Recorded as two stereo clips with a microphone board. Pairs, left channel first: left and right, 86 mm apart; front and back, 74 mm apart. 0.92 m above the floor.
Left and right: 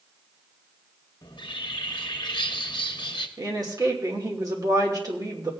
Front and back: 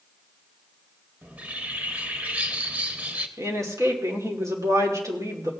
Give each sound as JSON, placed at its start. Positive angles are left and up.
{"t": 1.2, "sound": "a bird", "azimuth_deg": 110, "distance_m": 1.0}
{"t": 3.4, "sound": "a woman speaking", "azimuth_deg": -135, "distance_m": 2.5}